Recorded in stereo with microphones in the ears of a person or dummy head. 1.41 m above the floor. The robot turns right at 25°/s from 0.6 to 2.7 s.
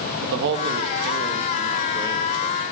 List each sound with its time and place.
0.2 s a man speaking: 65° right, 1.4 m; by 2.6 s 10° right, 1.4 m